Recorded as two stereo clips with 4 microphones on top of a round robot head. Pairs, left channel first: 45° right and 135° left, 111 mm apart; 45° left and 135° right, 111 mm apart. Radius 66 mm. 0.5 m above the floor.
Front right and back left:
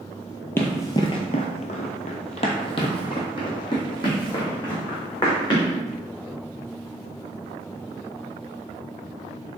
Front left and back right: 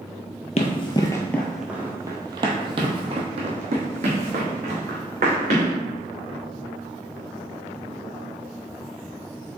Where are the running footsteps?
20° left, 0.7 m; by 5.7 s 105° right, 2.5 m.